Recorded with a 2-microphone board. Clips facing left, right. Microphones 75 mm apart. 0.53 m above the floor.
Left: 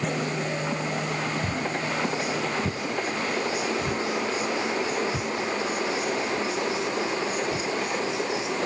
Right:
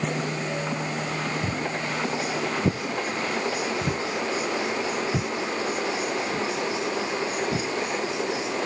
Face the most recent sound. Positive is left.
turn(degrees=-70)  # may be behind; listen again after turning